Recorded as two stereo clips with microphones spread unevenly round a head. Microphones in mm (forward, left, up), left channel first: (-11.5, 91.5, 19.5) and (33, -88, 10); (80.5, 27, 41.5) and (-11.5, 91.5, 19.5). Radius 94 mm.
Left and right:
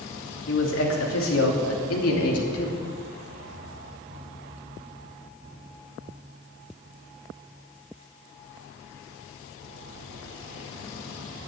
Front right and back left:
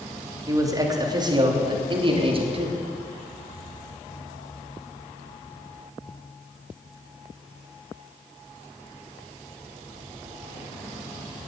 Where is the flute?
No flute in this recording.